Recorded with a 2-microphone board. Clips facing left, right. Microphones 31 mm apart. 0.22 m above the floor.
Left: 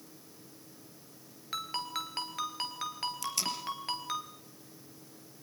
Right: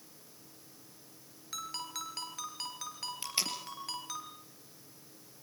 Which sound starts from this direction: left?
A ringtone, at 1.5 s.